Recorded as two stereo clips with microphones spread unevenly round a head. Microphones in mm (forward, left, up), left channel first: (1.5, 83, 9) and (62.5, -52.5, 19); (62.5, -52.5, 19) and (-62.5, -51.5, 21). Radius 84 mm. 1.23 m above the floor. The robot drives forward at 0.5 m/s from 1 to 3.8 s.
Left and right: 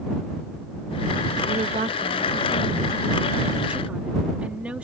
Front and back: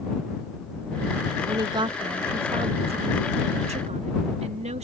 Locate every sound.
1.4 s a woman speaking: 120° right; by 4.8 s 150° right